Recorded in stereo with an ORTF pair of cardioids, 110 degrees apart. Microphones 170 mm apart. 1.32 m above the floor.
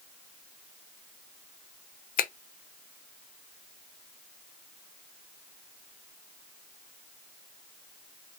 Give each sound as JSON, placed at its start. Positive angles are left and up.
{"t": 2.2, "sound": "a finger snap", "azimuth_deg": 60, "distance_m": 0.7}